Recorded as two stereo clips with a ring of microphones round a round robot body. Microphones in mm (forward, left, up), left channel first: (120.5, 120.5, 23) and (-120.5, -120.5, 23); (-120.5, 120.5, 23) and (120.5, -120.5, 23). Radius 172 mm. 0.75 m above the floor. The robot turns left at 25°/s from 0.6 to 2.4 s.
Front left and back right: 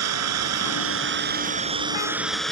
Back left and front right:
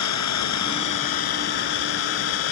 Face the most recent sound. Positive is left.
turn(degrees=135)